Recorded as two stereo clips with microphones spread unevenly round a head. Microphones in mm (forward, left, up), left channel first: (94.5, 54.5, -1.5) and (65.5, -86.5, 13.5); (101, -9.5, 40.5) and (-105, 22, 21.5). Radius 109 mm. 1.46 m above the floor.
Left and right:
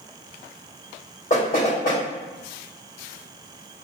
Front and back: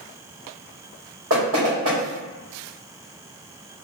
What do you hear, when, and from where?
1.3 s knocking: 140° left, 1.8 m